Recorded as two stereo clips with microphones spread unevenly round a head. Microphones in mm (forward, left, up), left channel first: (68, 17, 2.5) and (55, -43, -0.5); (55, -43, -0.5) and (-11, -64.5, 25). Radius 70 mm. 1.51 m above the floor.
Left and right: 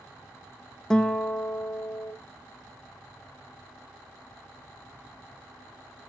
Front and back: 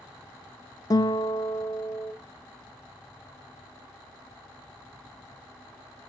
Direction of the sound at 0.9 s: 25° left.